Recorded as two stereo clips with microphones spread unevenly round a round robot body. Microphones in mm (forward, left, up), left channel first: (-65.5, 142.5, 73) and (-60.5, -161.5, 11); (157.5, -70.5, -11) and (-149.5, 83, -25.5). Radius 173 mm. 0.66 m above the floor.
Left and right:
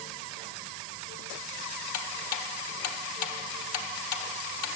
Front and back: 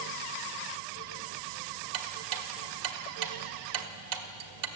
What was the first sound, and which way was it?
Ticking, 125° left.